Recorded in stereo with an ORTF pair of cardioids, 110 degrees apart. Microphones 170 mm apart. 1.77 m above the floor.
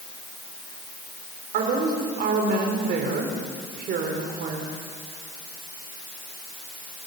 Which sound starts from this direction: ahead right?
A woman speaking, at 1.5 s.